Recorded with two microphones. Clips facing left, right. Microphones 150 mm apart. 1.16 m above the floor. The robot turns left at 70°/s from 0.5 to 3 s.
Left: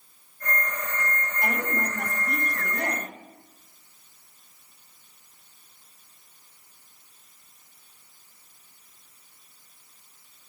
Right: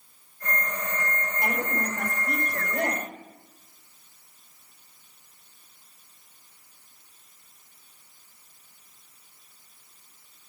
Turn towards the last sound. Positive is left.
turn(degrees=-130)